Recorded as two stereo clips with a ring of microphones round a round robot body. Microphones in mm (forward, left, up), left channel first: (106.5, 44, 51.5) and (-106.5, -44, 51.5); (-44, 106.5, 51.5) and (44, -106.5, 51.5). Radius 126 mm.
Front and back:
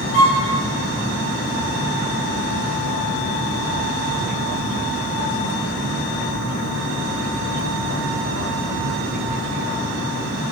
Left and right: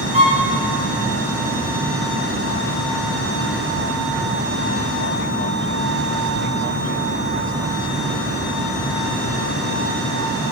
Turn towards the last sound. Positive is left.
turn(degrees=-10)